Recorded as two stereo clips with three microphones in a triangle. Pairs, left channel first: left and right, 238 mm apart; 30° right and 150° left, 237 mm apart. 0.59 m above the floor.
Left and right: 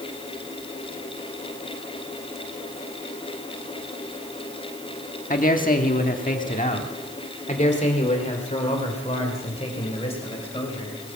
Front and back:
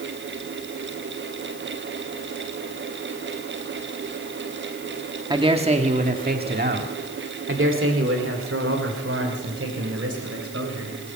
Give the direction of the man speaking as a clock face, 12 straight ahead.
9 o'clock.